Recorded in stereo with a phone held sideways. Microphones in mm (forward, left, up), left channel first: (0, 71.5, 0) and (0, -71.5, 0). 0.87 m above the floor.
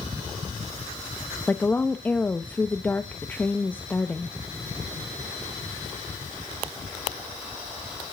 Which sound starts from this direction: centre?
A woman speaking, at 1.5 s.